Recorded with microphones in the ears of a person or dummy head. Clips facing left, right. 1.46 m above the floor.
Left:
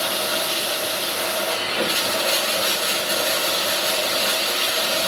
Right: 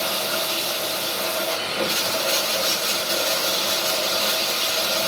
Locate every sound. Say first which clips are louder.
0.0 s running water: left 1 dB; 15° left (ahead or behind), 2.5 m